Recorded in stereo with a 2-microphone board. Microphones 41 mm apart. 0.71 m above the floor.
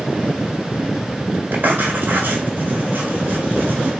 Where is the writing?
50° right (ahead or behind), 1.4 m.